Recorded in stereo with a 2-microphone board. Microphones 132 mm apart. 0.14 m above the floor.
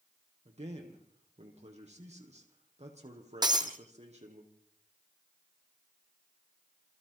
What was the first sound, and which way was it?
A man speaking, 55° right (ahead or behind).